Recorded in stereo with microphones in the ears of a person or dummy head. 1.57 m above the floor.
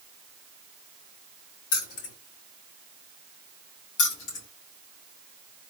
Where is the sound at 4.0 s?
65° left (ahead or behind), 2 m.